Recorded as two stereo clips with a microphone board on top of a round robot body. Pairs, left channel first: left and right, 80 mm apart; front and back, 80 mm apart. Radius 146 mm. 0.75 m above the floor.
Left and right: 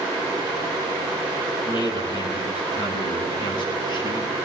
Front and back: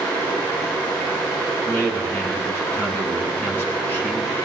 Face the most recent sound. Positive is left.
turn(degrees=65)